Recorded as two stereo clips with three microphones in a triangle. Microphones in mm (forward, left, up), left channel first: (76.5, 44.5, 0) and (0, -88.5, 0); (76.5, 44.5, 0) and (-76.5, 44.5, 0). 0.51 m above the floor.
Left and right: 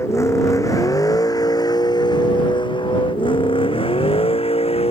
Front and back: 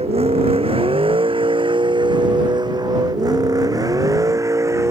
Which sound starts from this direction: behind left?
A vehicle, at 0.0 s.